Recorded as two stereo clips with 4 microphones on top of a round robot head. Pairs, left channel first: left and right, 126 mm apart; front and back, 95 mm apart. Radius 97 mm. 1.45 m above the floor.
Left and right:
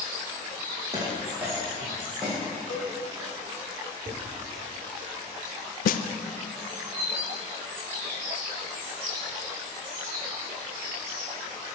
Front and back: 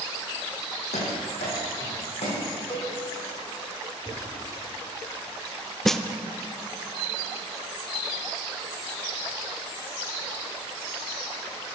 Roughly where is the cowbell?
Ahead left.